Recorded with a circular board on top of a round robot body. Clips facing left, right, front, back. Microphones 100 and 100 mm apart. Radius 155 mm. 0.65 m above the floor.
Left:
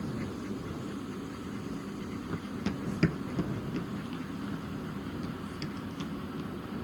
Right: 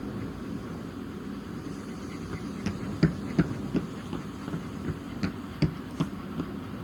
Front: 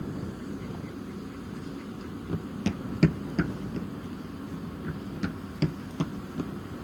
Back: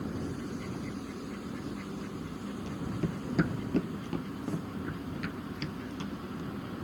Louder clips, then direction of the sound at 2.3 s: Right 1 dB, front 6 dB; 10° left.